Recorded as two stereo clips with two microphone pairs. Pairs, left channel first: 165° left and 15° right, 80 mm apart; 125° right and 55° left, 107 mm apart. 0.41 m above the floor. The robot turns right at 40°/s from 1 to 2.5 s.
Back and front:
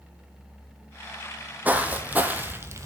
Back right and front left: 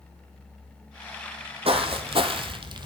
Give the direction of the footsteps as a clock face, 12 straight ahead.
10 o'clock.